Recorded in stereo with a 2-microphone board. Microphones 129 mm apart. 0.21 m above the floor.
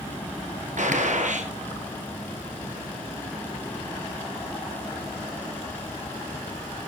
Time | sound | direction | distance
0.8 | a gunshot | 70° right (ahead or behind) | 1.8 m